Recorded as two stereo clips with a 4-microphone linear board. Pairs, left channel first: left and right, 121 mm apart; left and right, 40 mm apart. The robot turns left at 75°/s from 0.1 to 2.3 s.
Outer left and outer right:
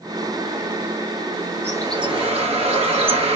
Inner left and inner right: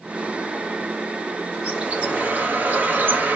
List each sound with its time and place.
1.6 s a bird: 20° right, 1.1 m; by 3.4 s 70° right, 1.1 m